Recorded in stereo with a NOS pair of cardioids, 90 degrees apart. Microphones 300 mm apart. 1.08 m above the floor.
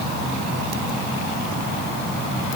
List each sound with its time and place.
Only background noise.